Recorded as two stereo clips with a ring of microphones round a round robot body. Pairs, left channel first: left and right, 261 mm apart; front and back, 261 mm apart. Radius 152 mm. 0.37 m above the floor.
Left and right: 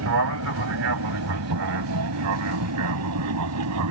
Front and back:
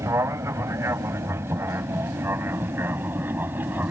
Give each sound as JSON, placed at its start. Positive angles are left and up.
{"t": 0.0, "sound": "an aircraft", "azimuth_deg": -100}